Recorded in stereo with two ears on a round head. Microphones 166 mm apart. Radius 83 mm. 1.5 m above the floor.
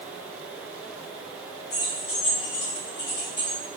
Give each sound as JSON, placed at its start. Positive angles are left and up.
{"t": 1.7, "sound": "keys jangling", "side_deg": 55, "distance_m": 2.5}